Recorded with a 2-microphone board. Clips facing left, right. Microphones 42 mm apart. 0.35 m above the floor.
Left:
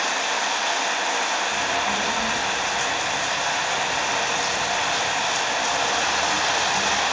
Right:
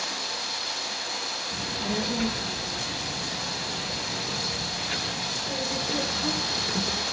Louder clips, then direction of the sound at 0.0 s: Left 9 dB; 65° left (ahead or behind).